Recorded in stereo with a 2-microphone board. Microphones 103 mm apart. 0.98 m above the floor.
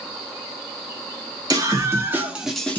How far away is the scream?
About 1.6 m.